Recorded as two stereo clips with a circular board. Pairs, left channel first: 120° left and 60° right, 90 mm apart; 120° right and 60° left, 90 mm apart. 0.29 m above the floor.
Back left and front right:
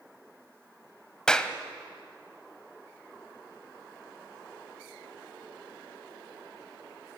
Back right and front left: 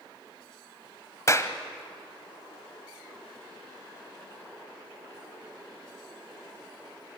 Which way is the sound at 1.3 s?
160° right.